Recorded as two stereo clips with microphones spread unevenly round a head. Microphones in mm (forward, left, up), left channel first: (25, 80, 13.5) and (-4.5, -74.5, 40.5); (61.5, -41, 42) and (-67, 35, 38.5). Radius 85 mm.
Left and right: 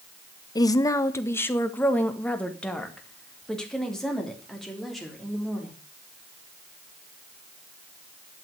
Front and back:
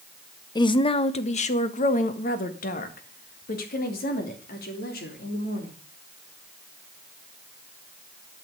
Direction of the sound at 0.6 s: 25° left.